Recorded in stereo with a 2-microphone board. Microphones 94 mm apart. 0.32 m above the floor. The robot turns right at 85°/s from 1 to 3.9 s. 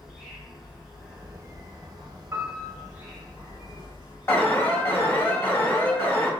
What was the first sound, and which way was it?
An insect, straight behind.